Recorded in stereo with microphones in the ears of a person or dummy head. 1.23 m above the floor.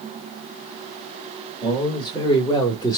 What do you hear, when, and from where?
1.6 s a man speaking: 20° left (ahead or behind), 2 m